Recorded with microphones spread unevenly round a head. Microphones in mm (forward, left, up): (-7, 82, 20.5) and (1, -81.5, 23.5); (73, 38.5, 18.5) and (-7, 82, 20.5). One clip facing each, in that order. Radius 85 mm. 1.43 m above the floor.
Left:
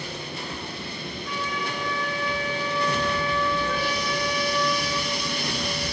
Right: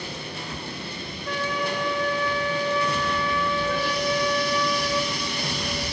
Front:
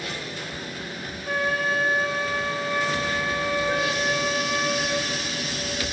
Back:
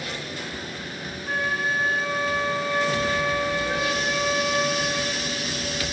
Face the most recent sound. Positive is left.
turn(degrees=-35)